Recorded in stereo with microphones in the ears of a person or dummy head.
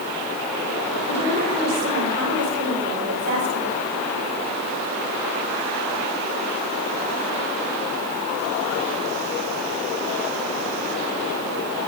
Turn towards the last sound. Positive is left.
turn(degrees=-70)  # may be behind; listen again after turning